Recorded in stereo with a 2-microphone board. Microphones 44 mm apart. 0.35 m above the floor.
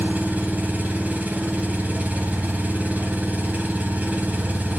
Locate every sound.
0.0 s an engine running: 35° right (ahead or behind), 2 m